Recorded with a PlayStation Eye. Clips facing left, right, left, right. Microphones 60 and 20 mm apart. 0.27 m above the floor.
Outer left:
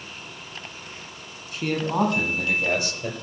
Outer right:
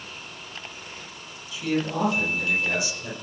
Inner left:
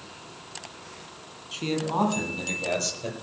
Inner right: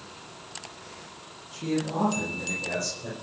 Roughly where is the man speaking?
Left.